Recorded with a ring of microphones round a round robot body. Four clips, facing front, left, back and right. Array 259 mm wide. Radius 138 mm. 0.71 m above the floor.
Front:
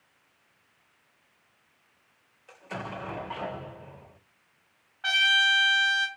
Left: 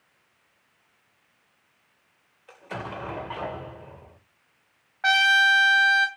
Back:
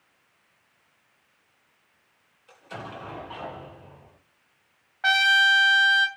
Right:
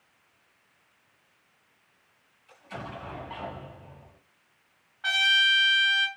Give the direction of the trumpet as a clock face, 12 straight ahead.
8 o'clock.